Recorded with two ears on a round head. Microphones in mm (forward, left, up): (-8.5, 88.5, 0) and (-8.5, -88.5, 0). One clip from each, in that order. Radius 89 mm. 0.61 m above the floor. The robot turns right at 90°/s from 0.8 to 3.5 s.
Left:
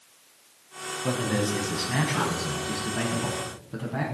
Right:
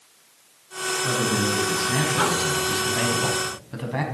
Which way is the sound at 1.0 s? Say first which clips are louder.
Right 2 dB; 90° left.